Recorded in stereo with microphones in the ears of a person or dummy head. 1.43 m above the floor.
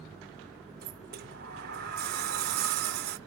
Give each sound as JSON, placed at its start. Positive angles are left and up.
{"t": 0.8, "sound": "a sliding door", "side_deg": -45, "distance_m": 0.5}